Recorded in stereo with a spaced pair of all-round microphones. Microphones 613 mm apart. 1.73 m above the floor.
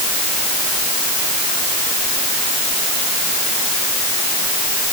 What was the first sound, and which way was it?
Only background noise.